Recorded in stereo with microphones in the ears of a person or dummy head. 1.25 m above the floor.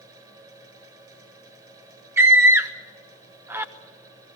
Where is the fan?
20° right (ahead or behind), 6.5 m.